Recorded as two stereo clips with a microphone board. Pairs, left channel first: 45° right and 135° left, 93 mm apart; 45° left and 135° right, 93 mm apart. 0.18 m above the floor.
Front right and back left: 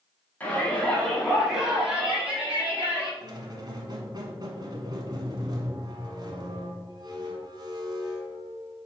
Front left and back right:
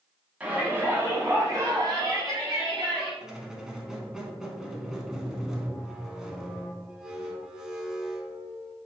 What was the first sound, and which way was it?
A shout, 85° right.